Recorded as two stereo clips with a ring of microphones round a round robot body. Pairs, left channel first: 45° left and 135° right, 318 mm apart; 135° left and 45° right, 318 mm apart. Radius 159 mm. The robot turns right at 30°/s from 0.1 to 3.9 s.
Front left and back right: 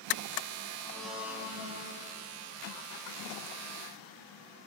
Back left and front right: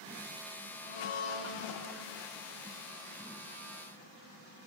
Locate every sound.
0.8 s a blender: 125° left, 5.5 m; by 1.9 s 160° left, 5.5 m